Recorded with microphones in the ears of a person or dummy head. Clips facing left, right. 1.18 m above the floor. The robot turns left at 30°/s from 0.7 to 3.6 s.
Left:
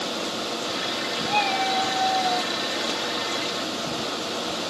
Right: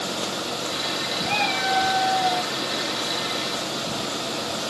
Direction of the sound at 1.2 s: 150° right.